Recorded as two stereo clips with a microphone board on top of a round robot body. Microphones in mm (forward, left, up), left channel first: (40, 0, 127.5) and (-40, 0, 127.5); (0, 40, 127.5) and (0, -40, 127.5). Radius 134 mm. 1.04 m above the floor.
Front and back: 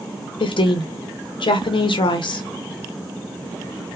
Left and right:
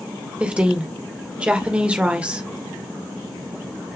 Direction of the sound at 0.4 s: 15° right.